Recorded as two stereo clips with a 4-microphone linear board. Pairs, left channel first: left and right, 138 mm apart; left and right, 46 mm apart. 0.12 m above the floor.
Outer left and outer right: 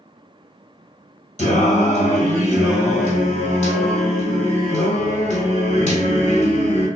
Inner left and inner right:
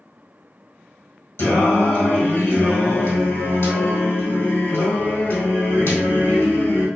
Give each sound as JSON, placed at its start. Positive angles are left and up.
{"t": 1.4, "sound": "singing", "side_deg": 60, "distance_m": 1.5}